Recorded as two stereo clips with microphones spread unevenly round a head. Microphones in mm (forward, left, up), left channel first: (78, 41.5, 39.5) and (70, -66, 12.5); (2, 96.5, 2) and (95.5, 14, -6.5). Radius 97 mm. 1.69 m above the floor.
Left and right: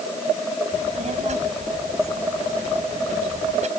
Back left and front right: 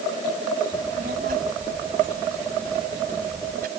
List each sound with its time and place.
0.7 s a child speaking: 80° right